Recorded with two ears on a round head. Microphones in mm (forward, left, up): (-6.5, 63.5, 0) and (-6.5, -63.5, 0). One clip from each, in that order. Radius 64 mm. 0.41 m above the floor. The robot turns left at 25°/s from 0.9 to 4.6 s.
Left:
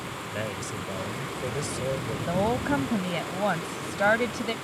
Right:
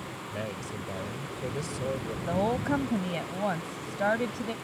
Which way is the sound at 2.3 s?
Straight behind.